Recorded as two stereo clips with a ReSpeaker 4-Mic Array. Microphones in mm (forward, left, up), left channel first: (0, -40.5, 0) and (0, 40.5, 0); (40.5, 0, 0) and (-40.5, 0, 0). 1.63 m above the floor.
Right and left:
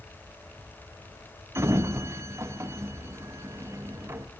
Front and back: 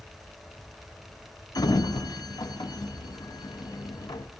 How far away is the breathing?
No breathing in this recording.